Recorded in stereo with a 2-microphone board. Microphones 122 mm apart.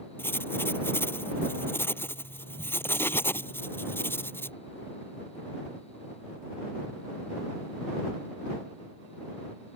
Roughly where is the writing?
Centre.